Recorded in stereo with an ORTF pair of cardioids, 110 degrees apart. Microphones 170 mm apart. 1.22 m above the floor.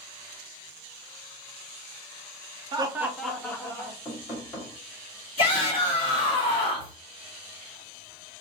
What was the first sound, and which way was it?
Laughter, 30° right.